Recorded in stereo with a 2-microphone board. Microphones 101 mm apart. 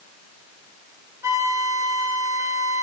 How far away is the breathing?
No breathing in this recording.